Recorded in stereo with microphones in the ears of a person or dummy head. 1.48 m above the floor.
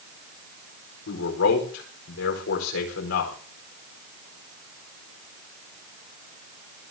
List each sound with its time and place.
1.1 s a man speaking: 70° left (ahead or behind), 4.5 m